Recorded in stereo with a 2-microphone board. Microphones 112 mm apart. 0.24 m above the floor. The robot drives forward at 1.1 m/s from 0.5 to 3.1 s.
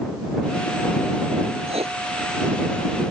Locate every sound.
1.7 s writing: 70° right (ahead or behind)